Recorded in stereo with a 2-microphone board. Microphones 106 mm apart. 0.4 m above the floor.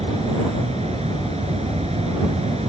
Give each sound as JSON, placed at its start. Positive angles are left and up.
{"t": 0.0, "sound": "an insect", "side_deg": -80}